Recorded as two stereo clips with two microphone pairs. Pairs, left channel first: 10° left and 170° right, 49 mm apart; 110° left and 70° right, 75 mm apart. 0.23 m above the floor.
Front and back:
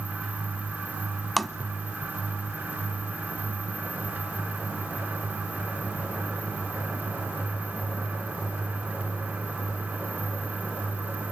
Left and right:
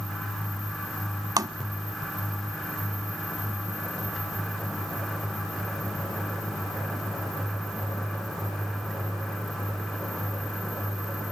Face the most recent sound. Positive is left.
turn(degrees=-75)